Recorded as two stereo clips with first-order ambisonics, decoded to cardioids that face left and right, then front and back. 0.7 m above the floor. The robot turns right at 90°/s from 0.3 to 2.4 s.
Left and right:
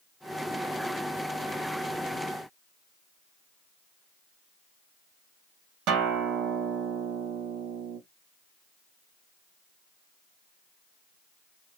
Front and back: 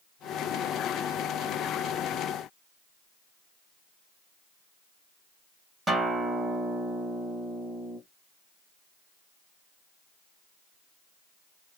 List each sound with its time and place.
5.9 s a guitar: 105° right, 0.9 m